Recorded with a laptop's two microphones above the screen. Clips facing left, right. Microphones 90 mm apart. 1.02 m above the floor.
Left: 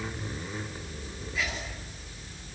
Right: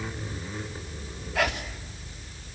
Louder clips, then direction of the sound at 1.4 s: Right 7 dB; 75° right (ahead or behind).